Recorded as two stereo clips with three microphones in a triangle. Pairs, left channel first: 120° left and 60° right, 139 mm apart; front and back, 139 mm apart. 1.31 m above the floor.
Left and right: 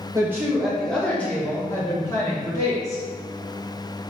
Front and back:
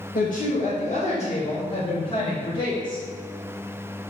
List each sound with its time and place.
0.1 s a woman speaking: 10° left, 1.0 m; by 3.0 s 55° left, 3 m